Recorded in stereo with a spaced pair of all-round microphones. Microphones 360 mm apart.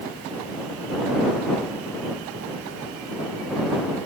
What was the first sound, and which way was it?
Only background noise.